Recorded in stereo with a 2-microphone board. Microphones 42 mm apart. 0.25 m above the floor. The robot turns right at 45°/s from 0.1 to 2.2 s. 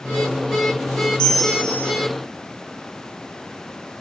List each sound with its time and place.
1.2 s a bell: 15° left, 5 m; by 1.9 s 45° left, 5 m